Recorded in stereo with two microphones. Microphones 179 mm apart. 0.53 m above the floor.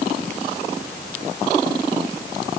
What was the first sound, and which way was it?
Only background noise.